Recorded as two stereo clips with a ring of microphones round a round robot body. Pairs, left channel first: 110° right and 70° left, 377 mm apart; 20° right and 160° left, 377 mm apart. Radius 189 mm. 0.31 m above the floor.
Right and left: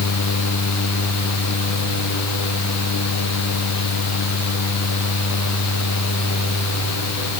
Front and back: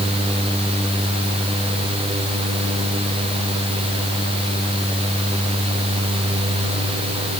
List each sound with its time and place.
Only background noise.